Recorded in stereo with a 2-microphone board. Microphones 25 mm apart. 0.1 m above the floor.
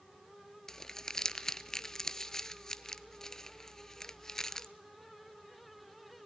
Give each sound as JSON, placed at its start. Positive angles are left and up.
{"t": 0.7, "sound": "crumpling", "side_deg": 20, "distance_m": 0.6}